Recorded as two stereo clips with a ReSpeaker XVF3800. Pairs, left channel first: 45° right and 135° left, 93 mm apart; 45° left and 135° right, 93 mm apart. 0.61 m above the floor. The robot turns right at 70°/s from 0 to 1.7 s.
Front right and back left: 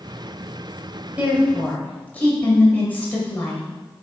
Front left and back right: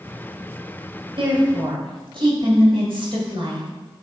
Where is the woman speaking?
155° right, 2 m; by 3.6 s 115° right, 2 m.